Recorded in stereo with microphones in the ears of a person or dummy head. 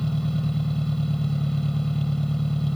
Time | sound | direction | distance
0.0 | an engine running | 5° left (ahead or behind) | ?